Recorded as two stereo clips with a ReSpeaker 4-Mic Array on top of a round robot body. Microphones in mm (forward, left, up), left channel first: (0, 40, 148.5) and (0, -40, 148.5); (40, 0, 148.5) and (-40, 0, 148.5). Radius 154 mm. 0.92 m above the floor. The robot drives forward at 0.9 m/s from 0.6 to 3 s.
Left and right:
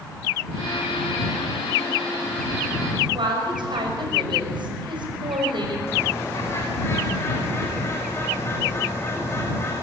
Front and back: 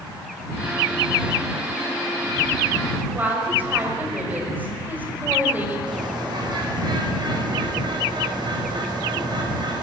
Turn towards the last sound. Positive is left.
turn(degrees=150)